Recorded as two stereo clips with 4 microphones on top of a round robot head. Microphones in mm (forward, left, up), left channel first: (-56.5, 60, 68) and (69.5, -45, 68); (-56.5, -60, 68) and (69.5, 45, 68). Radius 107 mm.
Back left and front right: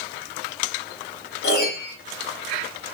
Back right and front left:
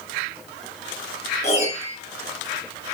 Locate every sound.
1.4 s a piano: 165° left, 2.5 m